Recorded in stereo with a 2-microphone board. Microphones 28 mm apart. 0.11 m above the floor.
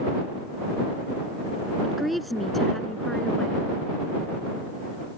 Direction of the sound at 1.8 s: 5° right (ahead or behind).